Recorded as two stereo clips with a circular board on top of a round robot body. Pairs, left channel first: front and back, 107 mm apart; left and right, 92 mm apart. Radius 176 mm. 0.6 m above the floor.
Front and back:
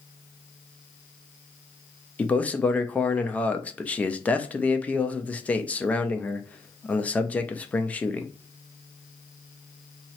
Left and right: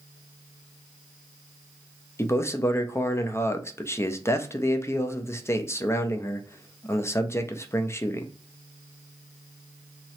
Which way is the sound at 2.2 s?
65° left.